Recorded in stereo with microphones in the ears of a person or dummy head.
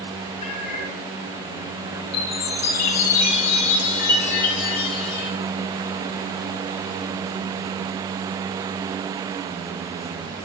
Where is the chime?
55° left (ahead or behind), 9 m.